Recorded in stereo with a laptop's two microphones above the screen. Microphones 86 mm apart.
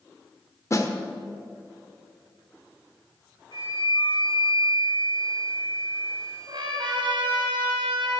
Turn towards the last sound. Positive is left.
turn(degrees=-75)  # may be behind; listen again after turning